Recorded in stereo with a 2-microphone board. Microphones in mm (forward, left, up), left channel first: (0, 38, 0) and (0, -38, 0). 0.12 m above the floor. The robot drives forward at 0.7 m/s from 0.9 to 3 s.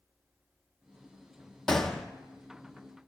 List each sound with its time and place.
1.7 s a gunshot: 5° left (ahead or behind), 0.8 m